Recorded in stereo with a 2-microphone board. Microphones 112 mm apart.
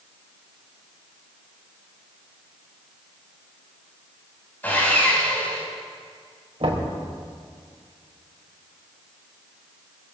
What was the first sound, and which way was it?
Sawing, 15° left (ahead or behind).